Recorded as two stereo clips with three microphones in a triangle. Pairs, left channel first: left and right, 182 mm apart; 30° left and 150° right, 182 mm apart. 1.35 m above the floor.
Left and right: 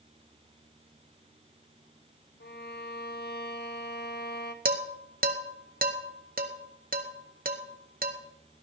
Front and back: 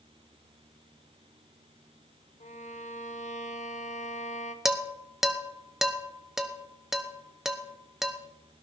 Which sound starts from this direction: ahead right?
Dishes clattering, at 4.7 s.